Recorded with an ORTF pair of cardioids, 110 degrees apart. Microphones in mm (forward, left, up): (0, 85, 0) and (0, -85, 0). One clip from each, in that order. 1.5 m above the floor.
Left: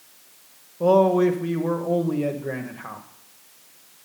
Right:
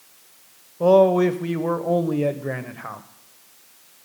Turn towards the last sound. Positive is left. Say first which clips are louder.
# right 2 dB
turn(degrees=-15)